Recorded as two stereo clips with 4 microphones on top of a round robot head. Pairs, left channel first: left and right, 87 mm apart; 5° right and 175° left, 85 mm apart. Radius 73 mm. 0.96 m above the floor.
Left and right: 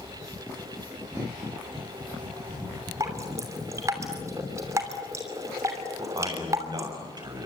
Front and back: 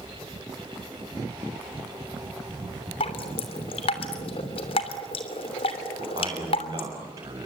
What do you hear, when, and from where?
3.0 s dripping: 25° right, 3 m
6.0 s a man speaking: 130° right, 8 m